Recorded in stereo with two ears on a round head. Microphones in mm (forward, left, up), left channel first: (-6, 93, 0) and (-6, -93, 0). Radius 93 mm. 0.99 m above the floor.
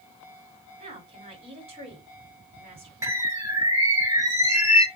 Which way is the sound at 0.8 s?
30° right (ahead or behind).